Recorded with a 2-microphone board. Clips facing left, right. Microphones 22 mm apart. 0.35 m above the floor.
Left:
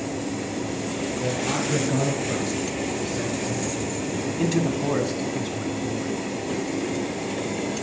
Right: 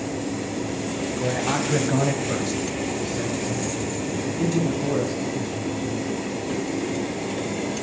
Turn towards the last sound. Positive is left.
turn(degrees=50)  # may be behind; listen again after turning